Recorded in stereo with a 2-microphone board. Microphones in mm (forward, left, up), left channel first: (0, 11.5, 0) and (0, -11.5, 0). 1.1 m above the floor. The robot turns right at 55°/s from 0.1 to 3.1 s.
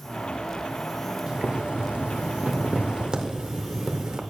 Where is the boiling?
145° right, 0.6 m; by 4.2 s 45° right, 0.6 m.